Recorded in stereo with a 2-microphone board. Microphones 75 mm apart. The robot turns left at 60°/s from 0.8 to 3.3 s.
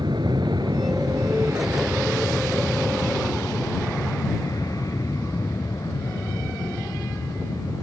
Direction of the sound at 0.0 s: 85° right.